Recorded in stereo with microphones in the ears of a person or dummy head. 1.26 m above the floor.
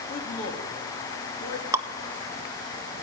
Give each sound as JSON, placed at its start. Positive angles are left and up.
{"t": 0.1, "sound": "a man speaking", "side_deg": 45, "distance_m": 2.5}
{"t": 1.7, "sound": "dripping", "side_deg": -20, "distance_m": 0.5}